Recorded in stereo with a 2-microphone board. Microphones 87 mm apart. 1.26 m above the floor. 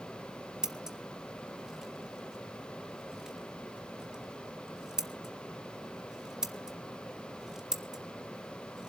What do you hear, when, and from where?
0.6 s scissors: 5° right (ahead or behind), 1.4 m